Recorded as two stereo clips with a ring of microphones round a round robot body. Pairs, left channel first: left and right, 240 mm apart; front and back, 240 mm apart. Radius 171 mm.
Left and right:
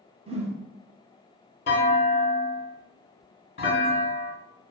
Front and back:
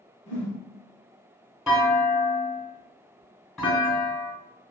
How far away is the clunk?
About 1.6 m.